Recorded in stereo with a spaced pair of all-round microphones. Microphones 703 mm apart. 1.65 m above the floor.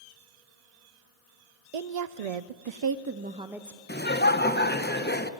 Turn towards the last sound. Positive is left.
turn(degrees=15)  # may be behind; listen again after turning